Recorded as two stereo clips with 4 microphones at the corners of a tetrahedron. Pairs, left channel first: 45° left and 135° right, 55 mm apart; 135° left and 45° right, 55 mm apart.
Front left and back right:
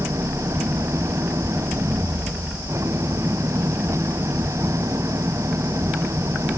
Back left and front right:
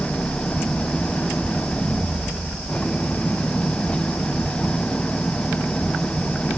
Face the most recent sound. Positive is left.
turn(degrees=-155)